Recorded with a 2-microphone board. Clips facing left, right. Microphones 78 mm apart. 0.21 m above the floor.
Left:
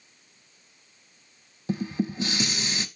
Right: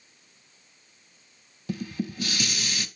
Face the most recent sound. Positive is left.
turn(degrees=25)  # may be behind; listen again after turning